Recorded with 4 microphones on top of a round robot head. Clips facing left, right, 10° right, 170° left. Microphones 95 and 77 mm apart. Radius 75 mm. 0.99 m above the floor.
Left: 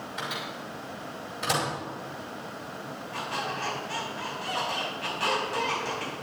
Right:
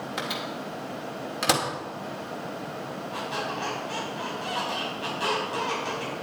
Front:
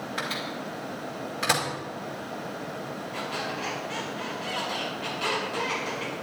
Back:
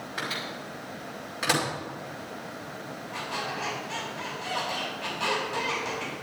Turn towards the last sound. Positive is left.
turn(degrees=-160)